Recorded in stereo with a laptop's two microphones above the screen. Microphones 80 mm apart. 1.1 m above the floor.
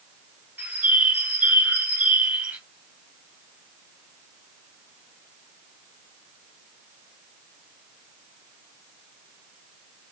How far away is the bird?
About 1.4 m.